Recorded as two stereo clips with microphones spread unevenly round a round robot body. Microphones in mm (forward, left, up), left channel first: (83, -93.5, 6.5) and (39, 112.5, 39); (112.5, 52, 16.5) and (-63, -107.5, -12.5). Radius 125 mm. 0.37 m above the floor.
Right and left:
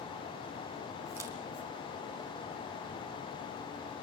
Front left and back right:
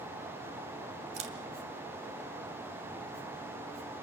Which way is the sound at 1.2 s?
175° right.